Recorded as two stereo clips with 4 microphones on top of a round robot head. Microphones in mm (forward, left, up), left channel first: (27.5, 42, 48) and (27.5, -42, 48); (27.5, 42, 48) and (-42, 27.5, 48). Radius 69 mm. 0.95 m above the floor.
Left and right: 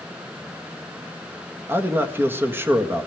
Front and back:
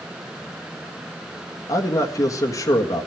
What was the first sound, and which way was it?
A man speaking, 30° right.